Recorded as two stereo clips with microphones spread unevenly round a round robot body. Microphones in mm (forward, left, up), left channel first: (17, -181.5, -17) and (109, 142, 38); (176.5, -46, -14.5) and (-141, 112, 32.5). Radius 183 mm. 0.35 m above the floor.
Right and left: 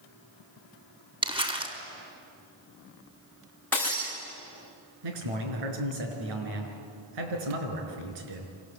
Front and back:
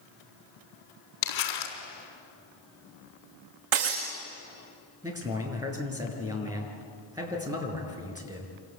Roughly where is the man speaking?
Left.